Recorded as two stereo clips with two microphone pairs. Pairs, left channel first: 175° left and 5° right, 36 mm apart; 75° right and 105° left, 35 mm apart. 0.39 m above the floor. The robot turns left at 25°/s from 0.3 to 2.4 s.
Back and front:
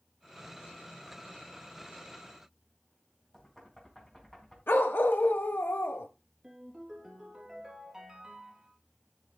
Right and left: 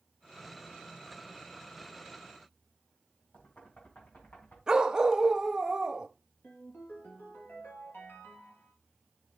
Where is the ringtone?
85° right, 3 m.